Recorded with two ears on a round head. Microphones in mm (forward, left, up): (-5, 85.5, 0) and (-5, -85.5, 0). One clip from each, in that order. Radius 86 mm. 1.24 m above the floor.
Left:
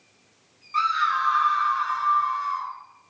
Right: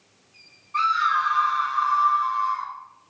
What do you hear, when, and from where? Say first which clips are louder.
0.7 s a scream: right 1 dB; 50° left (ahead or behind), 1.3 m; by 2.7 s 65° left (ahead or behind), 1.2 m